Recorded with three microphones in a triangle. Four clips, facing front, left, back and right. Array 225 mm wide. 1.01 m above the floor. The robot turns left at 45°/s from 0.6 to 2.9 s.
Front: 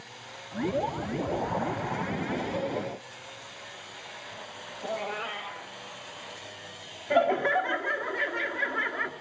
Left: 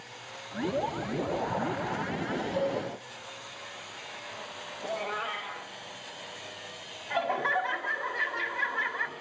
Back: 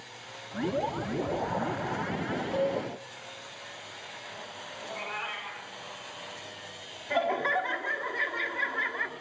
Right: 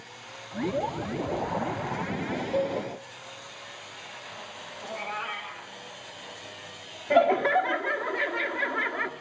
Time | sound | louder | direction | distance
2.5 | a cowbell | right 3 dB, back 8 dB | 120° right | 4 m
4.8 | a cat meowing | left 1 dB, front 5 dB | 30° left | 2.5 m
7.1 | laughter | right 8 dB, front 4 dB | 65° right | 1.7 m